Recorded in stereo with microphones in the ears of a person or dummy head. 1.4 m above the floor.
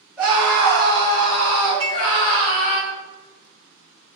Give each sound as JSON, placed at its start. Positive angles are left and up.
{"t": 0.2, "sound": "a scream", "side_deg": 0, "distance_m": 1.0}
{"t": 1.8, "sound": "dishes clattering", "side_deg": 70, "distance_m": 1.2}